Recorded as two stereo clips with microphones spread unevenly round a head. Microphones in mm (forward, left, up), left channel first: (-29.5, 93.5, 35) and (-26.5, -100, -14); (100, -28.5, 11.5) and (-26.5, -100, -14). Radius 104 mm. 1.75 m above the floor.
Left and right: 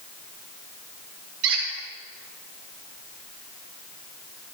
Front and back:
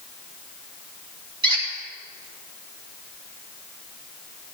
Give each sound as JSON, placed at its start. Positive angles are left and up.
{"t": 1.4, "sound": "a squeak", "azimuth_deg": -90, "distance_m": 3.5}